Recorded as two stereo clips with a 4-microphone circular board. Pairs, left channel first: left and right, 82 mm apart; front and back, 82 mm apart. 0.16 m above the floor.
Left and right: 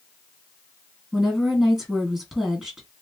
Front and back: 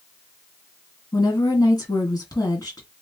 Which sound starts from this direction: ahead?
A woman speaking, at 1.1 s.